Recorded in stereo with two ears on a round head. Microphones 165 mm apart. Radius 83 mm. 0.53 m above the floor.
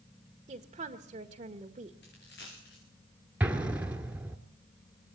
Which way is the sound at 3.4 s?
5° right (ahead or behind).